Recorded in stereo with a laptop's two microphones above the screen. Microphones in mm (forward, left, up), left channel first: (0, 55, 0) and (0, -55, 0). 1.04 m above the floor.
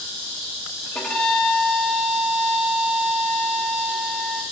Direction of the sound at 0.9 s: 5° left (ahead or behind).